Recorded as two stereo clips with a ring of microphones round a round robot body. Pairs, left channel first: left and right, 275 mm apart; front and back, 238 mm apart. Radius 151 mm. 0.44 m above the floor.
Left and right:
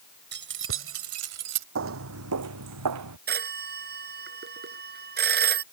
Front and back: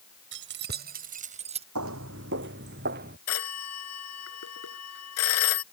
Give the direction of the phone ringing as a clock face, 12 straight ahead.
1 o'clock.